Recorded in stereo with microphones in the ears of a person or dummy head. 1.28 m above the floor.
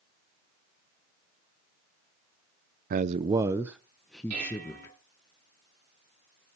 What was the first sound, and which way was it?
A man speaking, 40° right (ahead or behind).